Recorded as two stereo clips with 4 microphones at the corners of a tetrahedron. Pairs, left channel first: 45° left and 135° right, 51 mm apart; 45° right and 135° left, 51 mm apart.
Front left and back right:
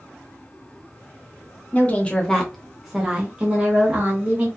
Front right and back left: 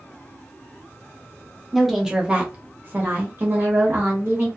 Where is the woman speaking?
45° left, 0.8 m; by 4.5 s 170° left, 1.5 m.